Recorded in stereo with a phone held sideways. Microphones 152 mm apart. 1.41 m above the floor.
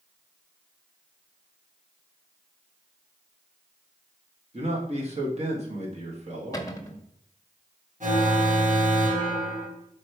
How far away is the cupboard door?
About 1.0 m.